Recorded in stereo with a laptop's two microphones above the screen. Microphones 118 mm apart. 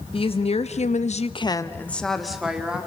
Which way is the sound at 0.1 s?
50° left (ahead or behind).